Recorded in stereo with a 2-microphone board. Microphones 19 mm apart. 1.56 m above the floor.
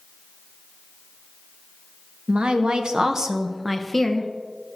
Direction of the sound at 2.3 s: 70° right (ahead or behind).